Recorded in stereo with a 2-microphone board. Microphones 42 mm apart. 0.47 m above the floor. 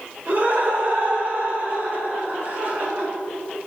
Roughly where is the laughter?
Right.